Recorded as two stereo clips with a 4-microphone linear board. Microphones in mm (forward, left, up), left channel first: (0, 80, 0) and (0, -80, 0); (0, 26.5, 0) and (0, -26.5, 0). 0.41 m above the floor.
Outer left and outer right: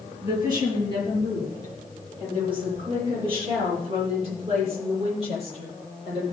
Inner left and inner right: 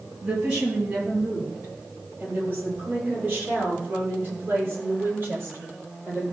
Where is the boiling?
No boiling in this recording.